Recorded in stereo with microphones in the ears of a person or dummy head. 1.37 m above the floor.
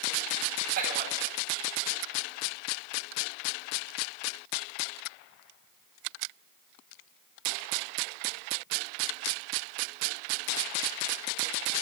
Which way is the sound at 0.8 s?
55° right (ahead or behind).